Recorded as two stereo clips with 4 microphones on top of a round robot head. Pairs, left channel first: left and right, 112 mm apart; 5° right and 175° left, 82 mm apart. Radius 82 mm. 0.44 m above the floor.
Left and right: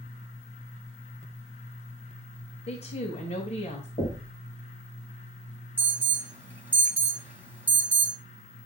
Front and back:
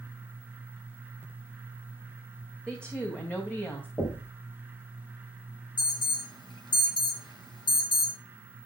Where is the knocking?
50° left, 3 m.